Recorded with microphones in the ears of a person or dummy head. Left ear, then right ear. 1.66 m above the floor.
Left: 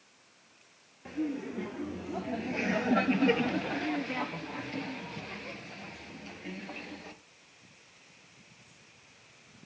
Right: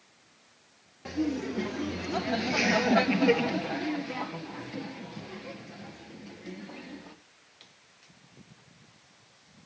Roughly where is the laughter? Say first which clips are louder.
Right 4 dB; right.